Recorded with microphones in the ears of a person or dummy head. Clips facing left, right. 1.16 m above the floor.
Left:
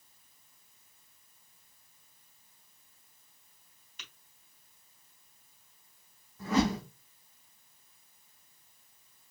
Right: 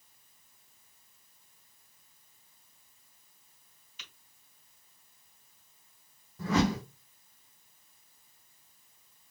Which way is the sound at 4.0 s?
45° left (ahead or behind).